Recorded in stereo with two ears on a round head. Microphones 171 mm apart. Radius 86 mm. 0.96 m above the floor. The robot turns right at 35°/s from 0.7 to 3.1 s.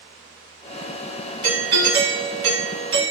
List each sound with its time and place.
1.4 s a doorbell: 130° right, 1.6 m; by 3.1 s 70° right, 1.6 m